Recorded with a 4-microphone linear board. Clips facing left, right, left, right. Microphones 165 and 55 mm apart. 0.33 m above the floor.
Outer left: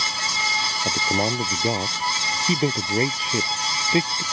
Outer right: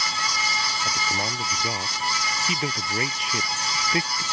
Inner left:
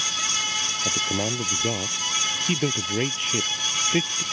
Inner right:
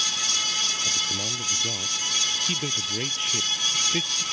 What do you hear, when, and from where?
0.8 s a man speaking: 40° left (ahead or behind); by 4.2 s 25° left (ahead or behind)